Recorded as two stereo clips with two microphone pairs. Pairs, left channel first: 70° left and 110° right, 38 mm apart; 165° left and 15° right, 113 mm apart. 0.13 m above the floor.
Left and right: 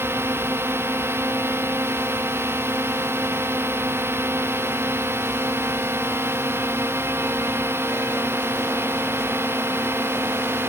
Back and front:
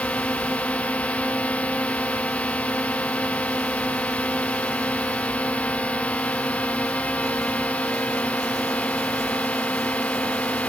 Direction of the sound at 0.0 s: 115° right.